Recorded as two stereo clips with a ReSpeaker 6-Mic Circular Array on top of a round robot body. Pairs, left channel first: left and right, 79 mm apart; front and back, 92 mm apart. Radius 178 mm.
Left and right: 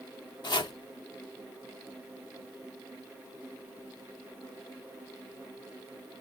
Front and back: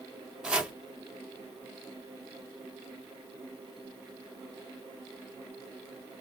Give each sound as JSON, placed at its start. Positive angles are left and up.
{"t": 0.4, "sound": "chopping", "azimuth_deg": 100, "distance_m": 1.0}